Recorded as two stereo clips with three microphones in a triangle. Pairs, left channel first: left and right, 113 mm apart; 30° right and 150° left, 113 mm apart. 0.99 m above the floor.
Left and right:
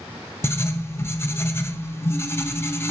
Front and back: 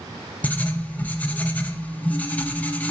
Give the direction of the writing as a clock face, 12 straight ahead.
11 o'clock.